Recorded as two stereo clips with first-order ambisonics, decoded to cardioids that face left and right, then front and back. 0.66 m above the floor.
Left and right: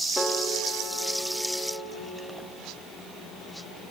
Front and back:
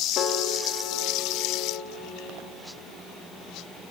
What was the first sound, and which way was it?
A piano, 10° left.